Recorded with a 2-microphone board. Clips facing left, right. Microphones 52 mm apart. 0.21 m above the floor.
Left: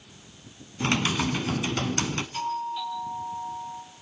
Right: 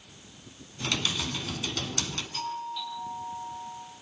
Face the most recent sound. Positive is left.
turn(degrees=20)  # may be behind; listen again after turning